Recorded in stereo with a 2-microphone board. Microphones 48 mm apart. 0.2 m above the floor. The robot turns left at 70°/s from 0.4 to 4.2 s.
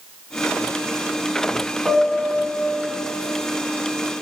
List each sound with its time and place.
1.9 s a piano: 155° right, 1.3 m; by 2.9 s 135° left, 1.3 m